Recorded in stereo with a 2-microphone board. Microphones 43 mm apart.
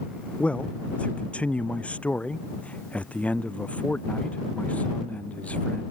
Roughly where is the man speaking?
Left.